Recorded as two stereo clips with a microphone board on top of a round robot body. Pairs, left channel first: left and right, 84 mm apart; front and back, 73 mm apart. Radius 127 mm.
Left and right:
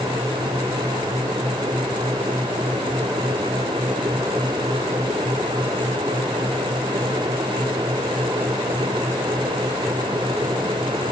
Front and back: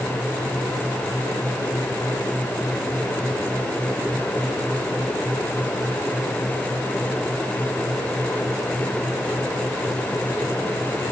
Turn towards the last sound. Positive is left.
No sound to turn to.